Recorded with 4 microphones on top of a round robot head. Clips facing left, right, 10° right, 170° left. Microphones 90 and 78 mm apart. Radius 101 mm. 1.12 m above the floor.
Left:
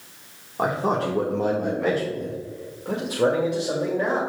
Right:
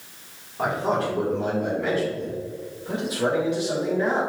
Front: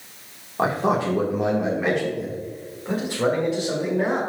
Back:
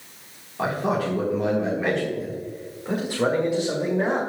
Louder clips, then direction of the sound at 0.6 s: Left 1 dB, front 3 dB; 45° left.